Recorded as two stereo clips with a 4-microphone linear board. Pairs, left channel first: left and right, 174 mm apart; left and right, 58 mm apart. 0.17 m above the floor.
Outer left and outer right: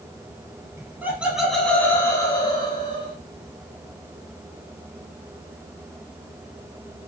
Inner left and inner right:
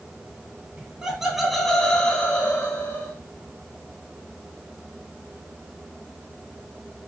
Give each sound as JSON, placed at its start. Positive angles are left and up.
{"t": 0.8, "sound": "laughter", "side_deg": -15, "distance_m": 1.1}